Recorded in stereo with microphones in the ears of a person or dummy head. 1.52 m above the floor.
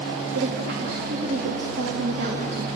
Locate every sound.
0.3 s a woman speaking: 55° right (ahead or behind), 3 m